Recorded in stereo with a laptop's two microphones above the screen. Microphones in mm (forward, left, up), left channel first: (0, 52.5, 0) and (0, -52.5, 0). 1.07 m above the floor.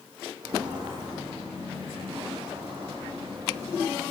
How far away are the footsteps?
About 2.5 m.